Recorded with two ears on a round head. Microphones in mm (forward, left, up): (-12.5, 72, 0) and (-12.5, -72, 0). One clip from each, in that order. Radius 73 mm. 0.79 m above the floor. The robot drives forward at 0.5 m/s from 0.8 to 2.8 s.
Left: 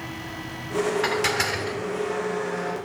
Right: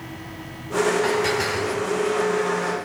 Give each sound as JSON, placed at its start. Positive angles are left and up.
{"t": 1.0, "sound": "dishes clattering", "side_deg": 55, "distance_m": 1.7}